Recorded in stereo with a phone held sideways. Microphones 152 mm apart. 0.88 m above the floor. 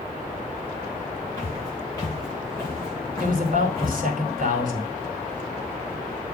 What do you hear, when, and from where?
1.4 s footsteps: 20° left (ahead or behind), 6.5 m; by 4.0 s 15° left (ahead or behind), 4 m
3.2 s a man speaking: 65° right (ahead or behind), 2 m